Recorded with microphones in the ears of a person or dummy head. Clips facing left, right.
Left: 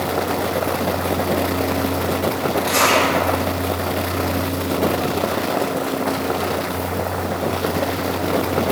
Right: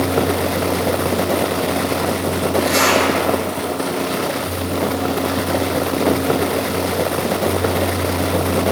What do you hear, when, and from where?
2.6 s a zipper: 25° right (ahead or behind), 3.5 m